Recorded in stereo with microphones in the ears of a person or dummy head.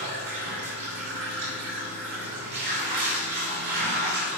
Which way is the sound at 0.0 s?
55° right (ahead or behind).